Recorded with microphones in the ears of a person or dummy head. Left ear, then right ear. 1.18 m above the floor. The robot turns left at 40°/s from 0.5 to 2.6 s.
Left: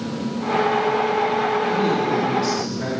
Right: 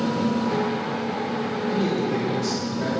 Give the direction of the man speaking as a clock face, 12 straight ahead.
4 o'clock.